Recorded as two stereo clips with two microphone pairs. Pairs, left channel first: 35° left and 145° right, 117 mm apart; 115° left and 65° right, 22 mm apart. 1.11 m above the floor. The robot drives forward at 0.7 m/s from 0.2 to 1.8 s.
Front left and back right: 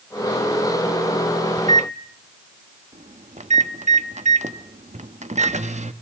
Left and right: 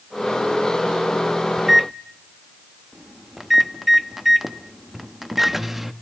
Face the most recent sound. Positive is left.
turn(degrees=-150)